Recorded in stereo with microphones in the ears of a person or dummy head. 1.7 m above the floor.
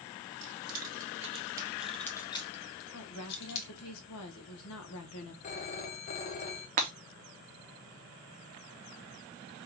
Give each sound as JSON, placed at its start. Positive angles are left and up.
{"t": 0.4, "sound": "keys jangling", "side_deg": -60, "distance_m": 1.3}
{"t": 2.9, "sound": "a woman speaking", "side_deg": 75, "distance_m": 1.3}
{"t": 5.4, "sound": "a phone ringing", "side_deg": 40, "distance_m": 0.8}
{"t": 6.8, "sound": "breaking glass", "side_deg": -30, "distance_m": 0.8}